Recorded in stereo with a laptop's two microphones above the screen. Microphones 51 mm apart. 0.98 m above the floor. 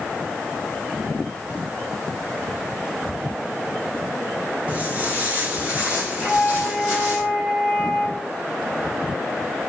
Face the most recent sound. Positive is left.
turn(degrees=-25)  # may be behind; listen again after turning